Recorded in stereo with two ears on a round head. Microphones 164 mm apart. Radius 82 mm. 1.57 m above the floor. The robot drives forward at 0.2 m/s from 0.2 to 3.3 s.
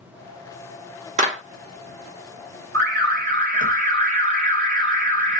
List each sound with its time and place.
1.2 s a clap: 40° right (ahead or behind), 1.0 m
2.7 s an alarm: 50° right (ahead or behind), 1.5 m; by 5.4 s 45° right (ahead or behind), 1.6 m